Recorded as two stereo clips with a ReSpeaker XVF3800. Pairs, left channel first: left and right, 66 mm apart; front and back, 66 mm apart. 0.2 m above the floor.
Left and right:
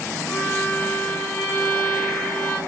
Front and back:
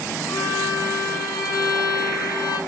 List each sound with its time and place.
0.3 s a violin: 20° left, 6 m